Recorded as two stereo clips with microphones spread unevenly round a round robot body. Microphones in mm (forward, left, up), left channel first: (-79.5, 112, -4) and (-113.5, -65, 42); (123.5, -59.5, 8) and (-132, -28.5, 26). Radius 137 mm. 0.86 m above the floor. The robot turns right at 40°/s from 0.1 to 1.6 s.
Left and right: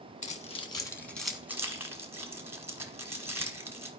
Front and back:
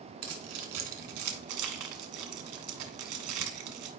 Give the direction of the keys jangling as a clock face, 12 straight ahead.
8 o'clock.